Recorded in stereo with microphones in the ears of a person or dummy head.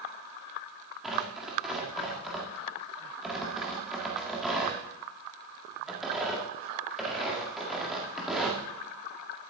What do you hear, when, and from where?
1.0 s tearing paper: centre (ahead or behind), 1.9 m